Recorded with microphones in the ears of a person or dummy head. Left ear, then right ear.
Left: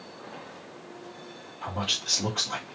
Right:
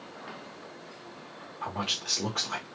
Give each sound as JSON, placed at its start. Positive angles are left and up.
{"t": 1.6, "sound": "a man speaking", "side_deg": -30, "distance_m": 1.2}